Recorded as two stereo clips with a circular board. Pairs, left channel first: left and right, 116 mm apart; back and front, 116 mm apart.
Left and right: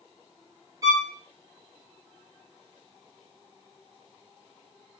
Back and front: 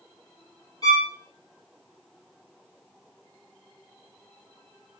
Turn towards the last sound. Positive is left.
turn(degrees=-140)